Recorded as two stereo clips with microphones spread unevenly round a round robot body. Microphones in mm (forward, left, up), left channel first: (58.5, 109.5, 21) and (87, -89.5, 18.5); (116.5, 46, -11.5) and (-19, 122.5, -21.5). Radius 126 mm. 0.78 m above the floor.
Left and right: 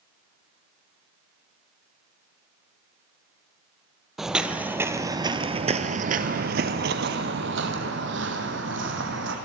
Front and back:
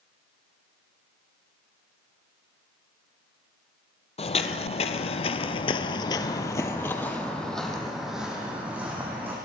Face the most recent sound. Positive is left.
turn(degrees=-125)